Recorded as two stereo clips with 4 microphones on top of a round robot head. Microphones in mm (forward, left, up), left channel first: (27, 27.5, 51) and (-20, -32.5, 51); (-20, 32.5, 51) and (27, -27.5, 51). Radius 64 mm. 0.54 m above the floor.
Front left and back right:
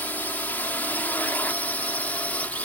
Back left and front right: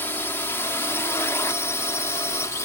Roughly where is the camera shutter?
No camera shutter in this recording.